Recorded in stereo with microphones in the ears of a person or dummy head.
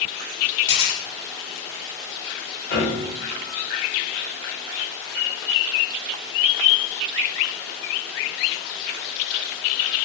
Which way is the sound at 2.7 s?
20° left (ahead or behind).